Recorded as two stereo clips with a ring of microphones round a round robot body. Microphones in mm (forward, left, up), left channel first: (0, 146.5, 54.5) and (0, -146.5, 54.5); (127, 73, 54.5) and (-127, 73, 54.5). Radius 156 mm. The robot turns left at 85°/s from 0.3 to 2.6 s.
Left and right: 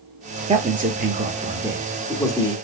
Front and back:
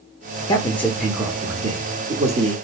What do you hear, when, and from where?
0.5 s a man speaking: 50° right, 0.8 m; by 2.5 s 135° left, 0.8 m